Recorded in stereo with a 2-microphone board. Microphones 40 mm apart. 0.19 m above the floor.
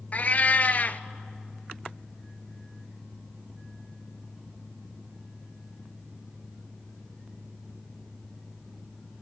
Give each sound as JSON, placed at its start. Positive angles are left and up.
{"t": 0.1, "sound": "a cat meowing", "side_deg": 40, "distance_m": 0.6}